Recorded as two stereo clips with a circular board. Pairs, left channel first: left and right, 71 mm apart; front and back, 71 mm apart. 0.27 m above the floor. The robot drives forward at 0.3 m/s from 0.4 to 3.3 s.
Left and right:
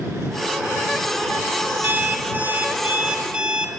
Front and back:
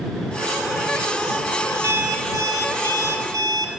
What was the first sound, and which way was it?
An alarm clock, 145° right.